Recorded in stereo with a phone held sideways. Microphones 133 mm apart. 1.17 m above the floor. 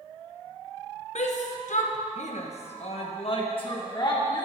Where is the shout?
60° left (ahead or behind), 1.1 m; by 4.5 s 35° left (ahead or behind), 2 m.